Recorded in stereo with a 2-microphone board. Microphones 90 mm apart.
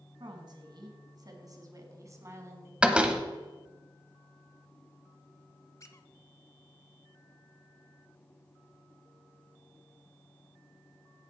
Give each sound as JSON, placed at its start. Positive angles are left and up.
{"t": 0.2, "sound": "a woman speaking", "side_deg": -55, "distance_m": 1.9}
{"t": 2.8, "sound": "a door slam", "side_deg": -10, "distance_m": 0.9}
{"t": 5.8, "sound": "a squeak", "side_deg": 35, "distance_m": 0.7}